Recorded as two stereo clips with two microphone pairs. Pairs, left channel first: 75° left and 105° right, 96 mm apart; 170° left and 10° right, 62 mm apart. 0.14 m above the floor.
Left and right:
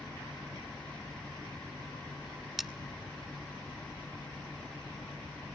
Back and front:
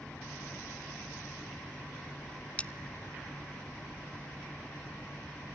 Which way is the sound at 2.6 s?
175° left.